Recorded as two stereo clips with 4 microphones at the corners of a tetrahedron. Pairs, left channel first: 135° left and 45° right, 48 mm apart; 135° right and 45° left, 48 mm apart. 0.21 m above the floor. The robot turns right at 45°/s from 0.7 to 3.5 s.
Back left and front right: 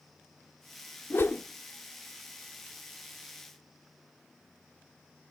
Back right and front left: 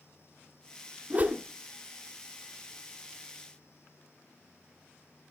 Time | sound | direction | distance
1.1 | a whoosh | 95° left | 1.2 m